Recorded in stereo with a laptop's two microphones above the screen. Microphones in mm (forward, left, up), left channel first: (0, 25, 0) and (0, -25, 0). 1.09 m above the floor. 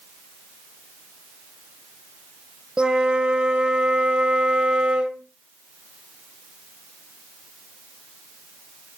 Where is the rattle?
I don't hear a rattle.